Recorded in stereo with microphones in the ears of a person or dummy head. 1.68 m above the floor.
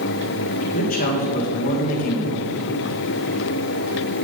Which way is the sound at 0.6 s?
45° left (ahead or behind).